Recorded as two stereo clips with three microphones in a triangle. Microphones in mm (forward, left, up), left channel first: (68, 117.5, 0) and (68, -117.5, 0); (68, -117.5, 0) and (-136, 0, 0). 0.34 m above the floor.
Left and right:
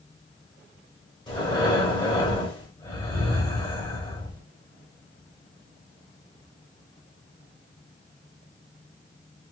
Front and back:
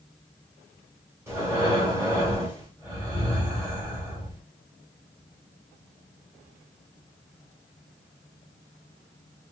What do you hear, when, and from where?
1.3 s breathing: 95° left, 1.4 m